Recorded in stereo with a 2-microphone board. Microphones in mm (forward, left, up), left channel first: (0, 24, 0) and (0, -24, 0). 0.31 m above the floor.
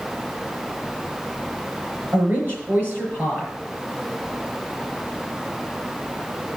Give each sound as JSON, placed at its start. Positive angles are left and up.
{"t": 2.1, "sound": "a woman speaking", "side_deg": -35, "distance_m": 5.5}